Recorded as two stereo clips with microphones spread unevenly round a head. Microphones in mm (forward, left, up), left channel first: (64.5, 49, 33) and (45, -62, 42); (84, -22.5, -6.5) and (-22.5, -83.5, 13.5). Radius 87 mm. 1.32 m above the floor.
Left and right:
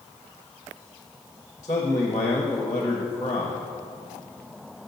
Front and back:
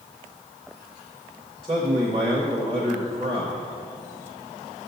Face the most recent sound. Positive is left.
turn(degrees=150)